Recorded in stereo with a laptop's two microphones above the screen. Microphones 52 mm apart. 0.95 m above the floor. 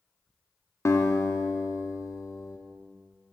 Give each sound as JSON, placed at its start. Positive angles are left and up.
{"t": 0.8, "sound": "a guitar", "side_deg": 65, "distance_m": 0.6}